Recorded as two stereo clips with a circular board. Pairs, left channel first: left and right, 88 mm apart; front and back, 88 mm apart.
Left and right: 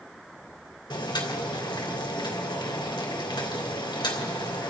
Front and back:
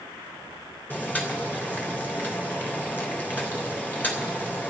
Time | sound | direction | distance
0.9 | boiling | 65° left | 3 m